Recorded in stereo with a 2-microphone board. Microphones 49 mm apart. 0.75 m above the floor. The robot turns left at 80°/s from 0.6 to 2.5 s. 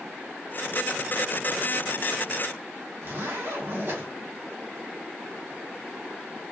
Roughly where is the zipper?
Right.